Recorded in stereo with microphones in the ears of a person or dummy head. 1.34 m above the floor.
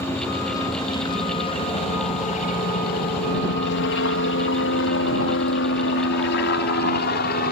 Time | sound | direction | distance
0.0 | a helicopter | 20° left (ahead or behind) | ?